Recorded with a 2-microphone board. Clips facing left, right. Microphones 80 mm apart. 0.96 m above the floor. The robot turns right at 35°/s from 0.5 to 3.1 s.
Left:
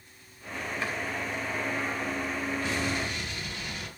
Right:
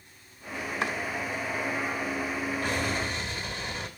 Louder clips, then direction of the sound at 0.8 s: Right 4 dB; 70° right (ahead or behind).